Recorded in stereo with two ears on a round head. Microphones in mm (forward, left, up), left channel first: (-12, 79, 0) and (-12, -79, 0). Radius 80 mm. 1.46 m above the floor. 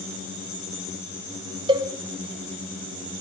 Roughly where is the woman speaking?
No woman speaking in this recording.